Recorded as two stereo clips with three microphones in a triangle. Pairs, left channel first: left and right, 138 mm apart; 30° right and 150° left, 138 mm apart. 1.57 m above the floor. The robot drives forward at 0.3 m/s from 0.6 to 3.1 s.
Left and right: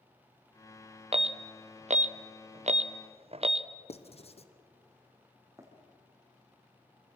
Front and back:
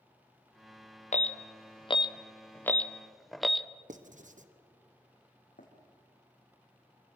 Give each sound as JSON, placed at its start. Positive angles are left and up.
{"t": 1.1, "sound": "an alarm", "azimuth_deg": -50, "distance_m": 0.6}
{"t": 3.9, "sound": "writing", "azimuth_deg": 130, "distance_m": 1.1}
{"t": 5.6, "sound": "running footsteps", "azimuth_deg": -25, "distance_m": 5.0}